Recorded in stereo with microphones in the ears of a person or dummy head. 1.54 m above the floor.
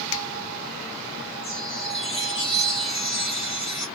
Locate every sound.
0.1 s a finger snap: 75° left (ahead or behind), 0.6 m
1.4 s a chime: 25° left (ahead or behind), 1.8 m